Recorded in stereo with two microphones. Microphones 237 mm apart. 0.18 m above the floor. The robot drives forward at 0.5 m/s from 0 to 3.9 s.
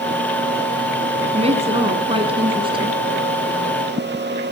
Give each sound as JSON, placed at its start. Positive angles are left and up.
{"t": 1.3, "sound": "a woman speaking", "side_deg": -25, "distance_m": 1.6}